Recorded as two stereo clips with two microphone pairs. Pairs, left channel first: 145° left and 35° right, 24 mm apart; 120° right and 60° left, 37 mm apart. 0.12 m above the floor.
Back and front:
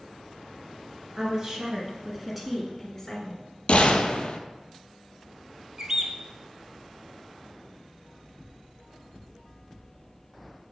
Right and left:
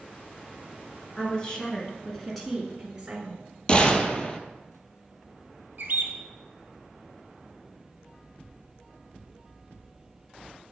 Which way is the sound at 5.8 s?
30° left.